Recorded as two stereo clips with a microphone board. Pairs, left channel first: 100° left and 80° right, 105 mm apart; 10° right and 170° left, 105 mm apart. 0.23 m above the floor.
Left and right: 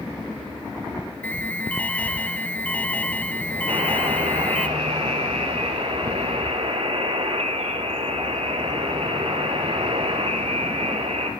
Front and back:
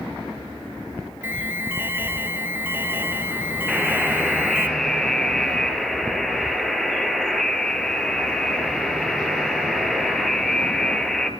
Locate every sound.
1.2 s an alarm: 150° left, 1.7 m
3.7 s a buzzer: 95° right, 3.5 m